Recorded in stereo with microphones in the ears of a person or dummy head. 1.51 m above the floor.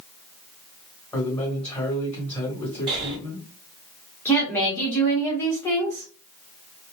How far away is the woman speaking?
About 1.0 m.